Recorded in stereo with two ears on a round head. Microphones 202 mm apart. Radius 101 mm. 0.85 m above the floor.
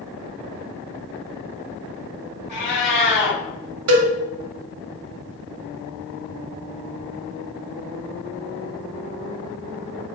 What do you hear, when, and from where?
2.5 s a cat meowing: 50° left (ahead or behind), 1.4 m
3.9 s a cowbell: 70° right (ahead or behind), 0.7 m